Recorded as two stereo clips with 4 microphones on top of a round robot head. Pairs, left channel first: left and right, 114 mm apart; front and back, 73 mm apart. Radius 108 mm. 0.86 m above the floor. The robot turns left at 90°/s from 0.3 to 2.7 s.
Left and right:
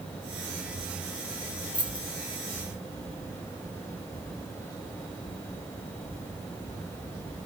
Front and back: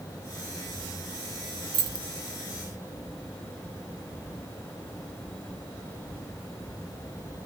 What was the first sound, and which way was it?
Keys jangling, 175° left.